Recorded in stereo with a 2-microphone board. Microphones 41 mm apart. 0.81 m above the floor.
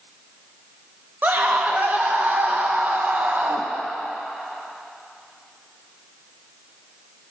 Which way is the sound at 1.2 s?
45° right (ahead or behind).